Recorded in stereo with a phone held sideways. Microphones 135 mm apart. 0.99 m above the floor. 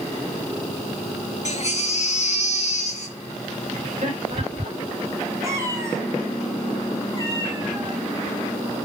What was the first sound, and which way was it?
A baby crying, 55° left (ahead or behind).